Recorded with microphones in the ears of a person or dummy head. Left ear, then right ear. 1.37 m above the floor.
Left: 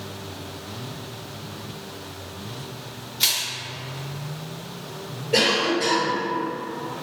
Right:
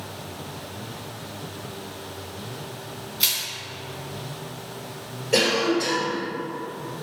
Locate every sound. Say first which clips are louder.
3.2 s crushing: left 2 dB; 5° right (ahead or behind), 0.8 m
5.3 s a cough: left 1 dB; 85° right, 1.7 m